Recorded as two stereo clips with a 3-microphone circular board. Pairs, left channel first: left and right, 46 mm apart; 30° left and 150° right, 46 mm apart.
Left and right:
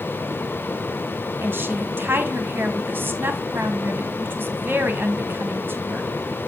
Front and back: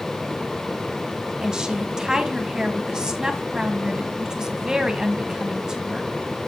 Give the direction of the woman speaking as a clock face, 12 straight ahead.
3 o'clock.